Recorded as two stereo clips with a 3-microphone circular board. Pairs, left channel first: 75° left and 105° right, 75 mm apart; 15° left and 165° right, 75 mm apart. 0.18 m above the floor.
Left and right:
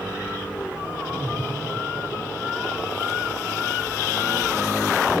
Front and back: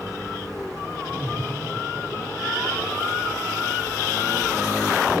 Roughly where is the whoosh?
Right.